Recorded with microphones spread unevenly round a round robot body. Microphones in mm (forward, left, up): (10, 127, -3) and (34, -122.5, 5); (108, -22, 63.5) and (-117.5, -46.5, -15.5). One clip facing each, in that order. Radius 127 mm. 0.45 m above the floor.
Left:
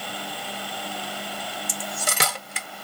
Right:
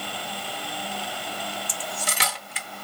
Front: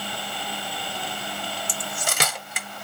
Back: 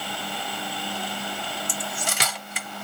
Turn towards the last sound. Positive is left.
turn(degrees=65)